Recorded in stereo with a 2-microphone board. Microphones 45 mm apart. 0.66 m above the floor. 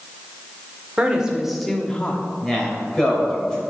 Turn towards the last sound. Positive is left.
turn(degrees=15)  # may be behind; listen again after turning